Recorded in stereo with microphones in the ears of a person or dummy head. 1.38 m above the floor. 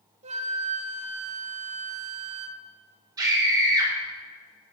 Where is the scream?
15° right (ahead or behind), 4 m.